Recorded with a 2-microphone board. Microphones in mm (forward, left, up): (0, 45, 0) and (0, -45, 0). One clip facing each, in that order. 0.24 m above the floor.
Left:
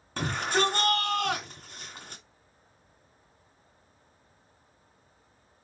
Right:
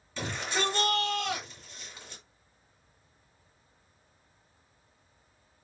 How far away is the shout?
About 2.5 m.